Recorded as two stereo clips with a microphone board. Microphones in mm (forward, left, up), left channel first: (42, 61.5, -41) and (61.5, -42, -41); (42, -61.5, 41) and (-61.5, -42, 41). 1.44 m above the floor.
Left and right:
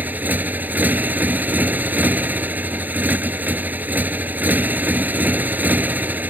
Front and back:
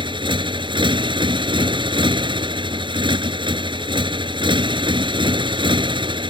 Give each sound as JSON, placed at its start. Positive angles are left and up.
{"t": 0.0, "sound": "a motorcycle", "azimuth_deg": -150}